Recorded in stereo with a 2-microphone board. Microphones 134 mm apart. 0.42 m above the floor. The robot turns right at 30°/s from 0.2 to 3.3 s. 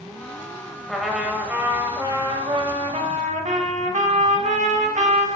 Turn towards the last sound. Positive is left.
turn(degrees=-110)